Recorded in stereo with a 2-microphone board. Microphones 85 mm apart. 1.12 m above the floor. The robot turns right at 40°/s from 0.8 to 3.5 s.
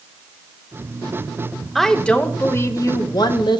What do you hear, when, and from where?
1.8 s a woman speaking: straight ahead, 1.0 m; by 3.6 s 70° left, 1.0 m